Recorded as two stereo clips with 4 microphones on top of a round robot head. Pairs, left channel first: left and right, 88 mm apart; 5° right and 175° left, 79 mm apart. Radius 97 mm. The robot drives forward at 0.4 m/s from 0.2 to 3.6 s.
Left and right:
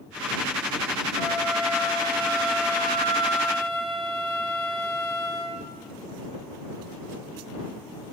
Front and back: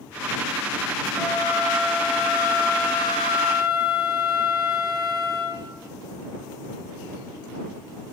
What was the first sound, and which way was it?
A flute, 140° left.